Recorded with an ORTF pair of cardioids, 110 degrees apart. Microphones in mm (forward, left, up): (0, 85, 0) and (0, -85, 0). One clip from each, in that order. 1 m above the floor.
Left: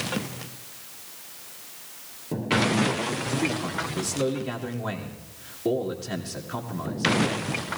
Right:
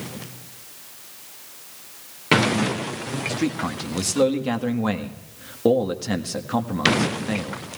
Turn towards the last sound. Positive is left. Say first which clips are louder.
# right 1 dB
turn(degrees=-70)